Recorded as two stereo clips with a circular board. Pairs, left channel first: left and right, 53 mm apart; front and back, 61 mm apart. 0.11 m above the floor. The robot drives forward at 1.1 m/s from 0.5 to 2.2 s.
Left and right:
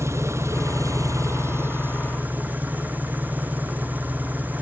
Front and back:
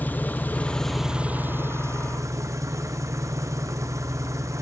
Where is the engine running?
60° right, 1.1 m; by 4.6 s 145° right, 1.7 m.